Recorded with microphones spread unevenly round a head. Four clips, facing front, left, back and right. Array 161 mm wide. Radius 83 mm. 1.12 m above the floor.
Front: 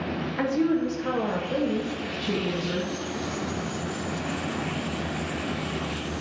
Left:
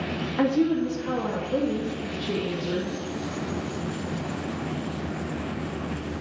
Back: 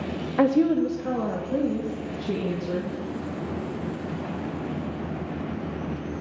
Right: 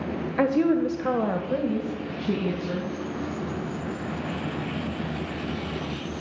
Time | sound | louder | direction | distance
0.4 | a woman speaking | right 1 dB, back 4 dB | 165° right | 0.6 m